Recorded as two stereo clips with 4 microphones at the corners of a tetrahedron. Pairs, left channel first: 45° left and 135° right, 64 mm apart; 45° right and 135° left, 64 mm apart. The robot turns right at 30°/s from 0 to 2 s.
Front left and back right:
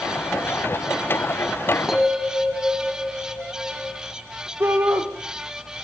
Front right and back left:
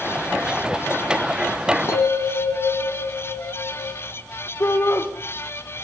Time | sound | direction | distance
1.9 | a bell | 50° right | 2 m
4.6 | a shout | 85° right | 3 m